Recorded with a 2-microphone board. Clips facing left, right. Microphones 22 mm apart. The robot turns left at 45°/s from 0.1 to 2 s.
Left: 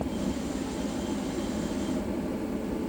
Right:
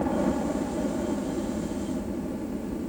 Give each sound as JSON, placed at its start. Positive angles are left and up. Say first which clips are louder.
{"t": 0.0, "sound": "a helicopter", "louder": "right 5 dB", "side_deg": -65}